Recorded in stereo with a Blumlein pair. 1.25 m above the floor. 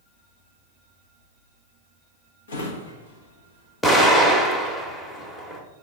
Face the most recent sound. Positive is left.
turn(degrees=10)